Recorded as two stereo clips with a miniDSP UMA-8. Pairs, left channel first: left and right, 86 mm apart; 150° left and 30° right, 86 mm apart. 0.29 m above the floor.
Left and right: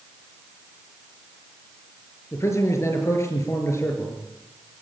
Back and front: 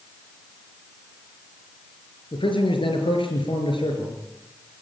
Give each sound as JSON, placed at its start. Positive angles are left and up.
{"t": 2.3, "sound": "a man speaking", "azimuth_deg": 145, "distance_m": 5.0}